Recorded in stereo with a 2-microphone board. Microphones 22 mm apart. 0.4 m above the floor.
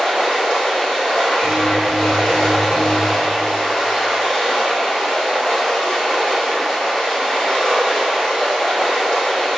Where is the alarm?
5° right (ahead or behind), 0.7 m.